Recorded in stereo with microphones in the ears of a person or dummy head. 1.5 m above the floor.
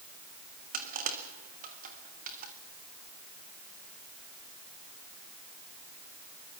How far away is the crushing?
About 3.5 m.